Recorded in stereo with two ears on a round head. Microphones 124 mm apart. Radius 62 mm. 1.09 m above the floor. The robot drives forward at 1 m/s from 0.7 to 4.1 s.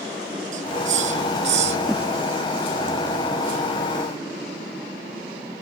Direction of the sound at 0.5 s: 60° right (ahead or behind).